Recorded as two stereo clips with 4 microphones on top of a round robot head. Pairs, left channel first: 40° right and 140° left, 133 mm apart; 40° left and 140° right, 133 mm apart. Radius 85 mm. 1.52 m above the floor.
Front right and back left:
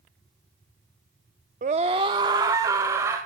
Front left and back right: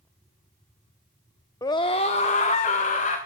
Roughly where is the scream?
Left.